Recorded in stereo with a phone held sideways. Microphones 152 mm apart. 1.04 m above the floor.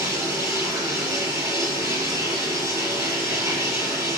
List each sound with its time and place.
0.0 s running water: 20° right (ahead or behind), 6.5 m